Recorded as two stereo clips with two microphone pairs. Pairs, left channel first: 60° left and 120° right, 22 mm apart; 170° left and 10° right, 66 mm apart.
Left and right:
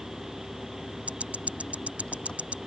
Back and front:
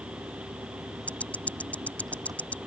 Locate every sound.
0.0 s an engine running: 10° left
1.1 s ticking: 125° right